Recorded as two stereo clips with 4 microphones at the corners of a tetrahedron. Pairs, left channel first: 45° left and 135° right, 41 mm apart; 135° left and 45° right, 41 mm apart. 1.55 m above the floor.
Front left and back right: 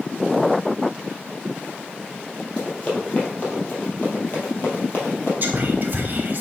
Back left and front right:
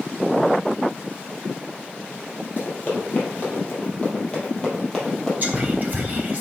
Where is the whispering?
95° right, 0.7 m.